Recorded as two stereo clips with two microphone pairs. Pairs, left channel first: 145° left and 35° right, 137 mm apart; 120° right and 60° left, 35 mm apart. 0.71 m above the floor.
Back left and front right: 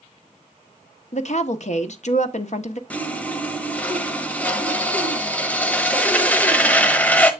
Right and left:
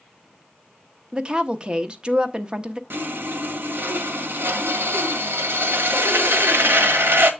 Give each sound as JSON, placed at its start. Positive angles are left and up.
{"t": 1.1, "sound": "a woman speaking", "azimuth_deg": 125, "distance_m": 0.9}
{"t": 2.9, "sound": "sawing", "azimuth_deg": 65, "distance_m": 1.1}